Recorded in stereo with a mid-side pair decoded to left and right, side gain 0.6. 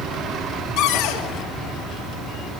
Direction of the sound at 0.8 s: 60° left.